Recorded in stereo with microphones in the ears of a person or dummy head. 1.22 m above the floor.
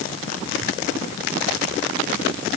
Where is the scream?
I don't hear a scream.